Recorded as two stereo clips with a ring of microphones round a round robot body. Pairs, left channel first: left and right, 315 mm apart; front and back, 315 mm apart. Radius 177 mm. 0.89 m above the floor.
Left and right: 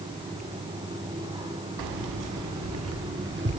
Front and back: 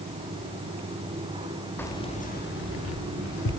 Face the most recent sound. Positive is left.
turn(degrees=-30)